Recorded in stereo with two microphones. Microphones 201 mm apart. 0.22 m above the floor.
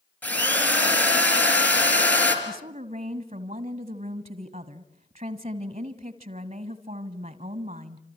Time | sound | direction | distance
0.2 | a drill | 10° left (ahead or behind) | 4 m
2.5 | a woman speaking | 35° right (ahead or behind) | 1.2 m